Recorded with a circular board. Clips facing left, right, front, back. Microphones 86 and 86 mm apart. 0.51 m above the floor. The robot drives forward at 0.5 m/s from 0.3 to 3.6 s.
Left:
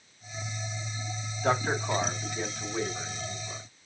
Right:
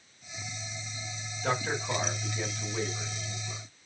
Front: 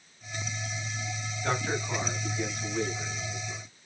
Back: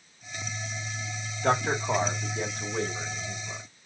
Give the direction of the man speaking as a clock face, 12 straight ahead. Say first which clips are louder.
Left 4 dB, back 5 dB; 7 o'clock.